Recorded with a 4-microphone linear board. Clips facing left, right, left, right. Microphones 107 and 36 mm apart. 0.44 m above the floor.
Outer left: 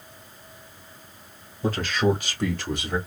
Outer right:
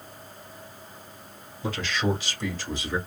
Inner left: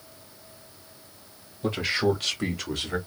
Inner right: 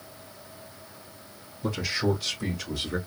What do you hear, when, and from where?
1.6 s a man speaking: 40° left (ahead or behind), 1.8 m; by 3.0 s 65° left (ahead or behind), 1.7 m